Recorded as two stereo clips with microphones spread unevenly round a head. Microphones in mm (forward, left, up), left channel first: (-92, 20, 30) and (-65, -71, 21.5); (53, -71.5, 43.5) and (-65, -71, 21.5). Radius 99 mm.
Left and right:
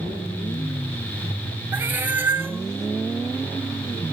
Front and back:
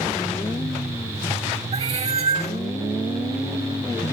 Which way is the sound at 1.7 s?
145° right.